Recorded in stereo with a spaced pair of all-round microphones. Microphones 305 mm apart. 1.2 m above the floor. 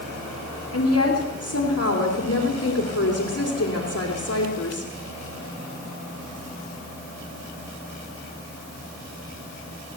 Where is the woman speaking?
50° left (ahead or behind), 3 m.